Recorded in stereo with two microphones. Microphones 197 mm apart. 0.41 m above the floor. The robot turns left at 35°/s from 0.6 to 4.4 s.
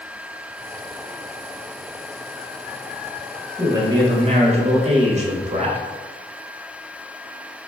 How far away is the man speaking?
About 1.2 m.